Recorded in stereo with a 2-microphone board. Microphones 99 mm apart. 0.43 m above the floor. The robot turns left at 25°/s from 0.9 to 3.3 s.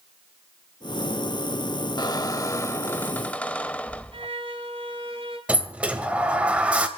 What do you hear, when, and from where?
2.0 s a squeak: 45° left, 0.6 m; by 4.3 s 15° left, 0.6 m
4.1 s a violin: 65° right (ahead or behind), 1.9 m
5.5 s a sliding door: 10° right (ahead or behind), 1.6 m